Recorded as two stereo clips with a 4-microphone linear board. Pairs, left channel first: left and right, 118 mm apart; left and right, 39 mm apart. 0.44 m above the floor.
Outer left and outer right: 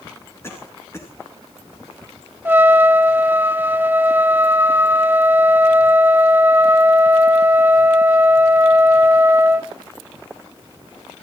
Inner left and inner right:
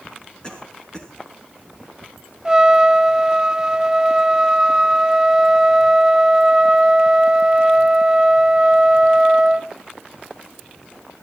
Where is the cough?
20° left (ahead or behind), 5 m.